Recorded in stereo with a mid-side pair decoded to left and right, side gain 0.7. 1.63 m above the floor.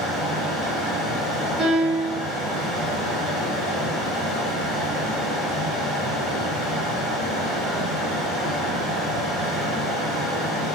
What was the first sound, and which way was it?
A fan, 25° left.